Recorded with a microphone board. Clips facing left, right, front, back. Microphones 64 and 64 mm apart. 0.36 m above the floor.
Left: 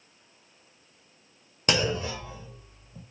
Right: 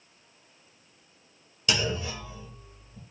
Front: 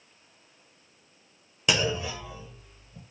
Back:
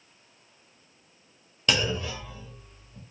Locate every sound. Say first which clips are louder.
1.7 s a clunk: left 3 dB, even; 75° left, 0.7 m